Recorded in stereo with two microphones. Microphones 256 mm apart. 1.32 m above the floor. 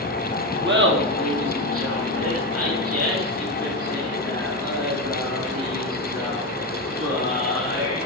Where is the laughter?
45° right (ahead or behind), 1.5 m; by 8.0 s 80° right, 6 m.